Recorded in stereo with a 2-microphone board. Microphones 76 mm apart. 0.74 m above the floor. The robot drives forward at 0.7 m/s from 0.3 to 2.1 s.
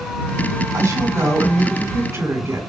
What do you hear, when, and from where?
0.7 s a woman speaking: 45° right (ahead or behind), 2 m; by 2.6 s 35° right (ahead or behind), 2.5 m